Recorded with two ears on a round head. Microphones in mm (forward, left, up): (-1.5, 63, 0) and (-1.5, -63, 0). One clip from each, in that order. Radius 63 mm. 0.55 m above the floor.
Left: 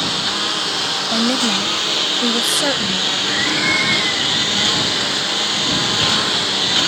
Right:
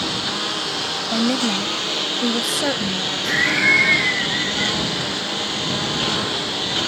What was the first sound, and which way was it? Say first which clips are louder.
A lawn mower: left 4 dB; 20° left (ahead or behind).